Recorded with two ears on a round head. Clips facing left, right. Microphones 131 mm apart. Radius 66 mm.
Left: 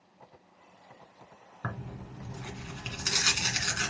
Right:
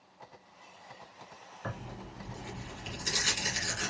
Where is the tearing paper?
75° left (ahead or behind), 1.7 m.